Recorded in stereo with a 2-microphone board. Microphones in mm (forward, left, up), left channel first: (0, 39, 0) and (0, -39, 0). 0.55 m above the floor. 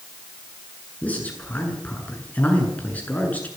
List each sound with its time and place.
1.0 s a man speaking: 20° left (ahead or behind), 7.5 m